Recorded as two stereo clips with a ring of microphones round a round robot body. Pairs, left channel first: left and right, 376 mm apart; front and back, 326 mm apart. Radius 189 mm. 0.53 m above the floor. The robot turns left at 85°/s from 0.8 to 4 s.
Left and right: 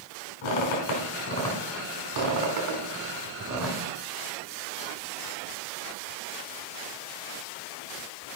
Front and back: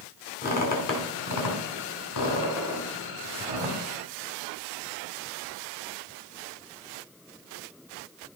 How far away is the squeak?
About 3.5 m.